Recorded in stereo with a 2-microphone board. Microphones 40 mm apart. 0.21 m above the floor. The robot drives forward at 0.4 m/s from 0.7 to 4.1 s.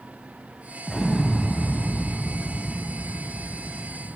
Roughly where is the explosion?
Centre.